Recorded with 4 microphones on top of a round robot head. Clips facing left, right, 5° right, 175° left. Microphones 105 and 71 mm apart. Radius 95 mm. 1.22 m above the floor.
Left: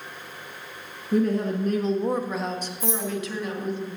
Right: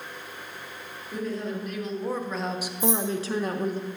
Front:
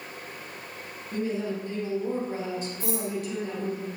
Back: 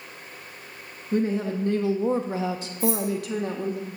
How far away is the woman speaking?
About 1.0 m.